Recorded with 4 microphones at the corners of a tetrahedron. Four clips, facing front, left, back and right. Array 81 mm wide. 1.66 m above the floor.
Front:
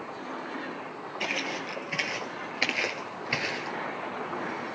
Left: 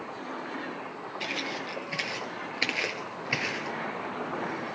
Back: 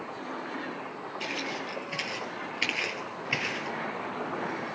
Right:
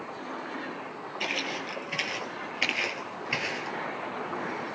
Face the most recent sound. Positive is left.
turn(degrees=65)